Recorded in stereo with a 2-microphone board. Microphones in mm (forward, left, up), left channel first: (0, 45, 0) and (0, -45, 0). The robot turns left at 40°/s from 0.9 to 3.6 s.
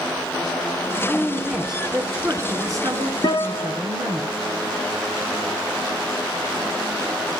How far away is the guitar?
About 1.0 m.